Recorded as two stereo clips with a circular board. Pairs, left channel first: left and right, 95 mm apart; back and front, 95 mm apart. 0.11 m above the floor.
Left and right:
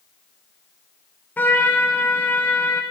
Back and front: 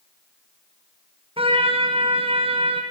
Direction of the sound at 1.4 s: 20° left.